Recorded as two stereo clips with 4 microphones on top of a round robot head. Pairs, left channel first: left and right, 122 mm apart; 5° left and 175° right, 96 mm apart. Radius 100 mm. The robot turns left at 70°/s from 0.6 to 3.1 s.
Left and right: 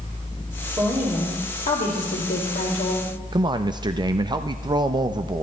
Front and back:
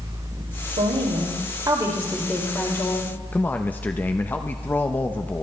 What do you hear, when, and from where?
0.8 s a woman speaking: 165° right, 3 m; by 3.1 s 30° left, 3 m
3.3 s a man speaking: 60° right, 0.8 m